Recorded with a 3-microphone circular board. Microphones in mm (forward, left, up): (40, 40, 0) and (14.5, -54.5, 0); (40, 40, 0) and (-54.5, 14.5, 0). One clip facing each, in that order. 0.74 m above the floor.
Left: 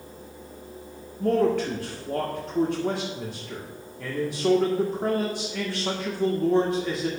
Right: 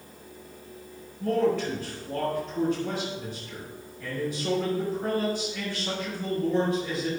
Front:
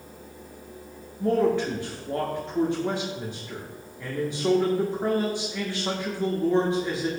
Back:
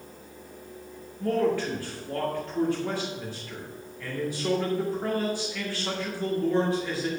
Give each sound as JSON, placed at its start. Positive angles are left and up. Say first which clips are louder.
{"t": 1.2, "sound": "a man speaking", "louder": "left 3 dB, front 3 dB", "azimuth_deg": 80, "distance_m": 1.9}